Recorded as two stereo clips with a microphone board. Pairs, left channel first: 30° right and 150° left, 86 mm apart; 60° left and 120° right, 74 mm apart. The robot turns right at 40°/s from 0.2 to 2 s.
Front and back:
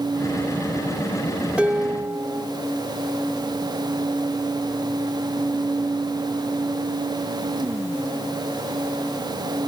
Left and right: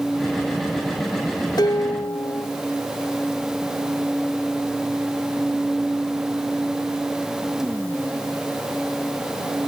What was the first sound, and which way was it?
Dishes clattering, 75° left.